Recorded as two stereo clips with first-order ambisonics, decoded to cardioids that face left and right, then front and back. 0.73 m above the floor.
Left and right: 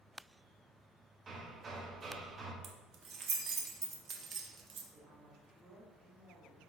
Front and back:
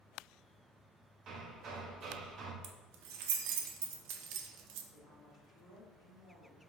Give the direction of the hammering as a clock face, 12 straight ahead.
5 o'clock.